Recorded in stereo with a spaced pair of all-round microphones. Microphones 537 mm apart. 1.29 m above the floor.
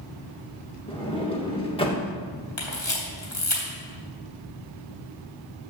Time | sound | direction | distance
0.9 | a sliding door | 10° left (ahead or behind) | 1.8 m
2.6 | a camera shutter | 60° left (ahead or behind) | 3 m